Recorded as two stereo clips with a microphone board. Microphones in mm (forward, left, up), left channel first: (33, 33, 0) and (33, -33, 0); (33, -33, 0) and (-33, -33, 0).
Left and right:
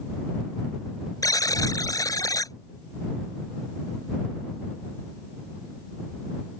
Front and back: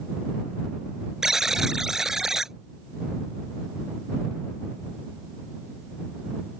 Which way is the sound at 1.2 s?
100° left.